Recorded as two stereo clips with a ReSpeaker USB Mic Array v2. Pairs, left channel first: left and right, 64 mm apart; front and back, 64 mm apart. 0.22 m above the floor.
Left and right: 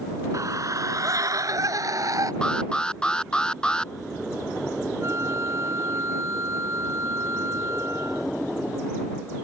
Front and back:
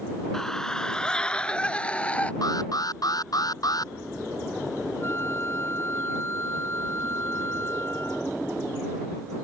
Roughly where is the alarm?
Ahead.